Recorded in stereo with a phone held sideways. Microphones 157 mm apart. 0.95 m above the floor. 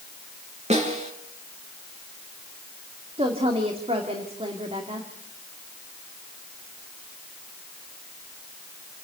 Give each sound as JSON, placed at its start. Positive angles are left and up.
{"t": 0.7, "sound": "a snare drum", "side_deg": -45, "distance_m": 3.0}
{"t": 3.2, "sound": "a woman speaking", "side_deg": -40, "distance_m": 2.5}